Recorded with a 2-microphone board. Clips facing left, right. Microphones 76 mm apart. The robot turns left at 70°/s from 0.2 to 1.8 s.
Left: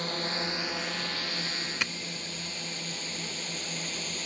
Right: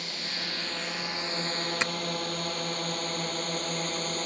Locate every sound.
0.0 s a drone: 40° left (ahead or behind); by 4.3 s 50° right (ahead or behind)
1.8 s tapping: 25° right (ahead or behind)